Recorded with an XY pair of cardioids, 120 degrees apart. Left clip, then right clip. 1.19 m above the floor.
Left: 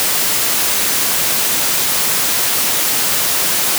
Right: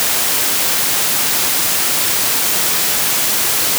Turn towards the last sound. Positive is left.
No sound to turn to.